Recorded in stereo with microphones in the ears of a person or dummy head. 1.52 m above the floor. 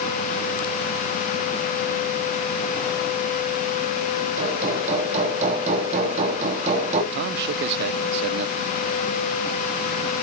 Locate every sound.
4.4 s hammering: 40° right (ahead or behind), 3 m
7.1 s a man speaking: 55° right (ahead or behind), 0.6 m